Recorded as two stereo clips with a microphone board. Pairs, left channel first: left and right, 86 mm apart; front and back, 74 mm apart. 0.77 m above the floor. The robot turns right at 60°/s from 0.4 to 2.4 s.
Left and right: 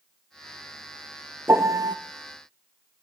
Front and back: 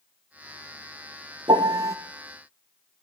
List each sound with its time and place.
1.5 s a piano: 160° right, 0.7 m; by 2.0 s 130° right, 0.7 m